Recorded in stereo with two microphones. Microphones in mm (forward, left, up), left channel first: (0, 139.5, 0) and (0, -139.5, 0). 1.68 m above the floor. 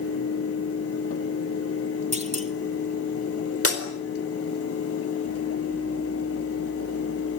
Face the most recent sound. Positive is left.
turn(degrees=-55)  # may be behind; listen again after turning